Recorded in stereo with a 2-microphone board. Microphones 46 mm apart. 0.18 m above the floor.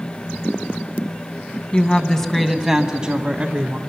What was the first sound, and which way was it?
A woman speaking, 25° left (ahead or behind).